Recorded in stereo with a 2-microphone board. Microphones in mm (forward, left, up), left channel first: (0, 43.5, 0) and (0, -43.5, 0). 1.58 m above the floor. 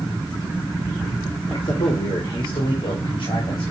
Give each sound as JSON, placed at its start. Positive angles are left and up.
{"t": 1.4, "sound": "a man speaking", "side_deg": 70, "distance_m": 2.5}